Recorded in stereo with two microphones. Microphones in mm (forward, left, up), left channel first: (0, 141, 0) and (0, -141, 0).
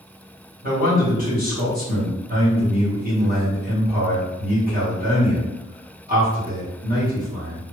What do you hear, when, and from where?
0.6 s a man speaking: 30° right (ahead or behind), 1.5 m